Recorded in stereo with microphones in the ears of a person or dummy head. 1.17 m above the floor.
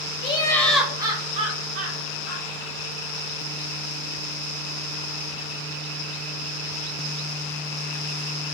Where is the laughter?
30° left (ahead or behind), 0.6 m; by 2.5 s 65° right (ahead or behind), 1.0 m.